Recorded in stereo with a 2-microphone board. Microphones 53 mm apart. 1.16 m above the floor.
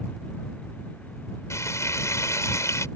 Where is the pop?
No pop in this recording.